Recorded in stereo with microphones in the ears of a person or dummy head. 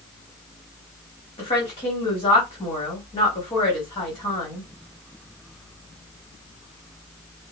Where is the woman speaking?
30° left (ahead or behind), 1.2 m.